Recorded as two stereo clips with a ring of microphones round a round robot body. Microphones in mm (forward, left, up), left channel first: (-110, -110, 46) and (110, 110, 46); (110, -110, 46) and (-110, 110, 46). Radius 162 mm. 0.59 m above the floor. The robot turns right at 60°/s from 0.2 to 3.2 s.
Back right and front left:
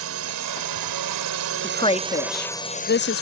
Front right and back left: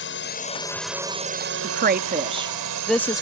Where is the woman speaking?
150° left; by 3.2 s 115° right.